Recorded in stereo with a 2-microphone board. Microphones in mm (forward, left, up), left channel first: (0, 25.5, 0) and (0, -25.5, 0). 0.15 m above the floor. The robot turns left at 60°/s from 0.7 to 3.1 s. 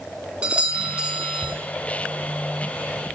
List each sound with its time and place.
0.4 s a doorbell: 20° right (ahead or behind), 1.6 m